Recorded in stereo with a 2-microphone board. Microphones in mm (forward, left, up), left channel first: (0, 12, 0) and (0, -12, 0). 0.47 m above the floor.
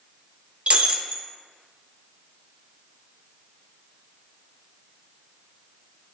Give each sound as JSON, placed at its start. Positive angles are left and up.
{"t": 0.7, "sound": "breaking glass", "side_deg": -55, "distance_m": 0.5}